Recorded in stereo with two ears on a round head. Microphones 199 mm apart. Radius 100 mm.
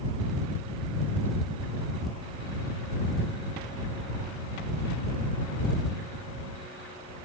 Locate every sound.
Only background noise.